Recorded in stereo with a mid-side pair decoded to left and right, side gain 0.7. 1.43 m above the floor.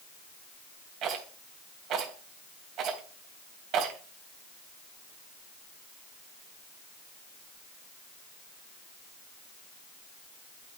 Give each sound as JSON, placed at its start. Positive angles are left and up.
{"t": 1.0, "sound": "a rattle", "azimuth_deg": -55, "distance_m": 3.5}